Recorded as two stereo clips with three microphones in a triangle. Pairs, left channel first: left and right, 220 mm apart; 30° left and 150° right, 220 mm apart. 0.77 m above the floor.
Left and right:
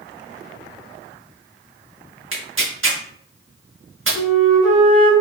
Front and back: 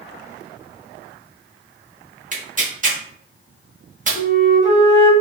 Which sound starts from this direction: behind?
A flute, at 4.2 s.